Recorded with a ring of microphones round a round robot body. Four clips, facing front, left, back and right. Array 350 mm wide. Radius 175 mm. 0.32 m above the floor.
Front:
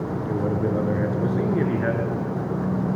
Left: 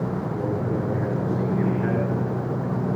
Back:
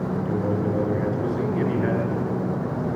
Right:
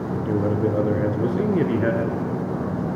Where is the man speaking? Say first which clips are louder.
Right 4 dB, even; 70° right, 5 m.